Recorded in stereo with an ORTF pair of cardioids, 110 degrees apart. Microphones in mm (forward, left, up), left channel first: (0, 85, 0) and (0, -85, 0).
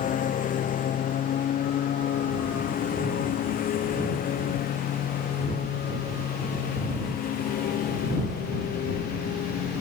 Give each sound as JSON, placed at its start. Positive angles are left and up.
{"t": 0.0, "sound": "a lawn mower", "azimuth_deg": 55}